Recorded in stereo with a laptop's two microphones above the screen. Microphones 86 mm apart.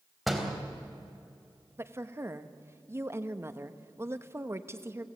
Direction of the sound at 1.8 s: 30° right (ahead or behind).